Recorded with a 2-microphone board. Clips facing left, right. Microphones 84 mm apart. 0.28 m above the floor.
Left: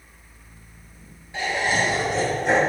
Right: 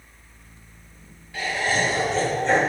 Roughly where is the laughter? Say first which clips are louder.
Left 1 dB; left.